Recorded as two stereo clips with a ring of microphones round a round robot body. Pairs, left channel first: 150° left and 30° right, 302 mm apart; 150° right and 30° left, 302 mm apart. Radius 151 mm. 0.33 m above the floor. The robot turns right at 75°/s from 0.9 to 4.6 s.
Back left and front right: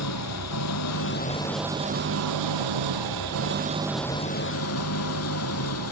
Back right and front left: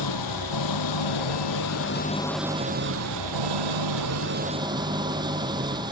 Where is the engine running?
170° right; by 5.9 s 105° left.